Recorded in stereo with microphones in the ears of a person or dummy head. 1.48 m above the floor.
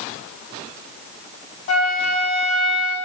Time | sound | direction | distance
1.7 | a flute | 45° left (ahead or behind) | 1.6 m